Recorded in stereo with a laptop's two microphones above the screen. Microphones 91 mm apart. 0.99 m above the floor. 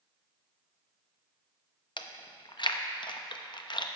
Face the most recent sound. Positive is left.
turn(degrees=55)  # may be behind; listen again after turning